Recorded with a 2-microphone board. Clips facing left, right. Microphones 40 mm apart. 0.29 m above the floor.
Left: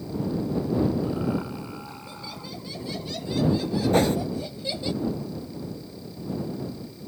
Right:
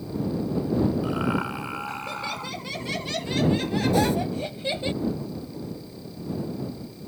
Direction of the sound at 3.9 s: 45° left (ahead or behind).